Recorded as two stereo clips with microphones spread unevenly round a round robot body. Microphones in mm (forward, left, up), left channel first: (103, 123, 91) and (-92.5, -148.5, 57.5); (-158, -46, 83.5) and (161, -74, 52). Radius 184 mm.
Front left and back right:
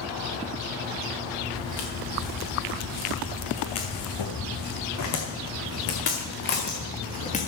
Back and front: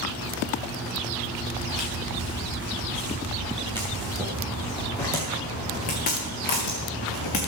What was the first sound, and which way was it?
Footsteps, 45° left.